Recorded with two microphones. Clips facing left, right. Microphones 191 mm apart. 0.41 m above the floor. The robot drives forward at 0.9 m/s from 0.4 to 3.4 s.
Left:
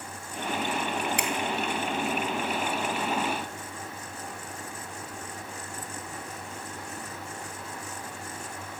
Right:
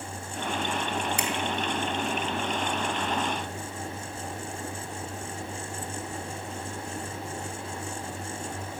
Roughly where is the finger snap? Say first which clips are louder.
Even; left.